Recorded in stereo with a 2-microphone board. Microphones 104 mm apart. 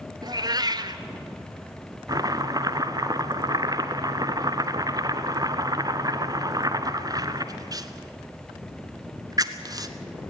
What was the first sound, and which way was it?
A cat meowing, 40° right (ahead or behind).